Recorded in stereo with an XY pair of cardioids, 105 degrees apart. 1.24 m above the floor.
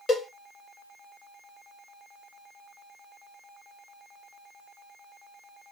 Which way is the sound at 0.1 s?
35° left.